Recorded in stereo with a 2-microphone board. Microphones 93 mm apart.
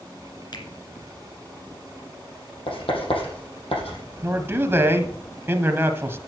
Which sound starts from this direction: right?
A man speaking, at 4.2 s.